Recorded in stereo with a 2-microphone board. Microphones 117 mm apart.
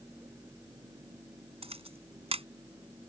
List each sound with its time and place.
1.6 s a camera shutter: 55° right (ahead or behind)